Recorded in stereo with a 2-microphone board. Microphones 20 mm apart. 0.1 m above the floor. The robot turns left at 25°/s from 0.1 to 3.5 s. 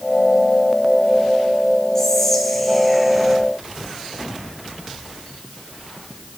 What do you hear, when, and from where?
1.9 s whispering: 30° left, 1.5 m; by 3.4 s 10° right, 1.5 m